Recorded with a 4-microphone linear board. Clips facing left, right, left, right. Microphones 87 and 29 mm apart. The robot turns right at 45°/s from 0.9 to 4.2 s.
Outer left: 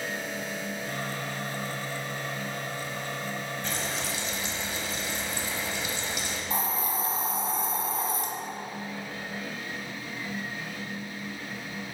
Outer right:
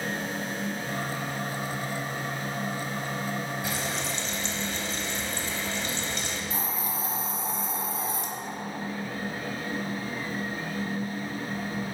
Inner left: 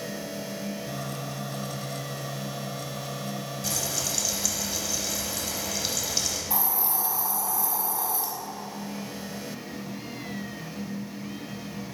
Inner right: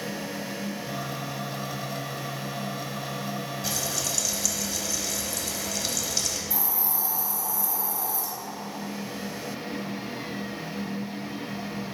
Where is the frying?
10° right (ahead or behind), 1.1 m; by 6.4 s 10° left (ahead or behind), 1.1 m.